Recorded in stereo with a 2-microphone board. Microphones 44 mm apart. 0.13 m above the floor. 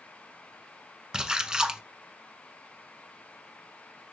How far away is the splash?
About 0.6 m.